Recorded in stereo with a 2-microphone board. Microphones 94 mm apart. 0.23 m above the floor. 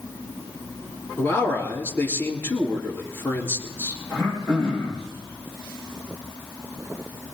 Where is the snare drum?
No snare drum in this recording.